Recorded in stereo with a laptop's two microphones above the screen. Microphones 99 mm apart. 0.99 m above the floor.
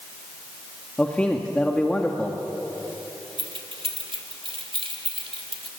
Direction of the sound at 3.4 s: 60° right (ahead or behind).